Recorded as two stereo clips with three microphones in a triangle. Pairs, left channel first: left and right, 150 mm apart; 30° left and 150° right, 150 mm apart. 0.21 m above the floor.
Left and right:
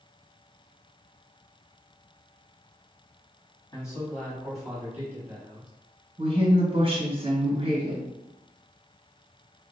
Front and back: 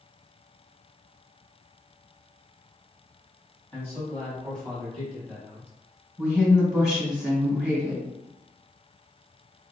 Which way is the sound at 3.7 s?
80° left.